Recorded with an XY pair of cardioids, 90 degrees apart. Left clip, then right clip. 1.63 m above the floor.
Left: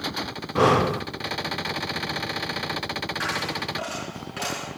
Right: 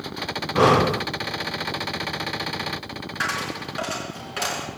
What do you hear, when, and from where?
0.6 s breathing: 10° right, 0.6 m
3.2 s a dropped coin: 45° right, 5 m